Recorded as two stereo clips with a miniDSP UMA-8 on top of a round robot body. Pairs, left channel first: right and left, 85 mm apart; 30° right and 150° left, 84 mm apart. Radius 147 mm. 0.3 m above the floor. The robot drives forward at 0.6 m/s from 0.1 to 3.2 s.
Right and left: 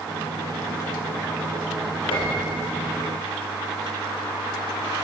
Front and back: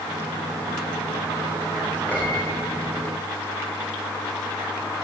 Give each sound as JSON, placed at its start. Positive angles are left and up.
{"t": 2.1, "sound": "a piano", "azimuth_deg": -105, "distance_m": 4.5}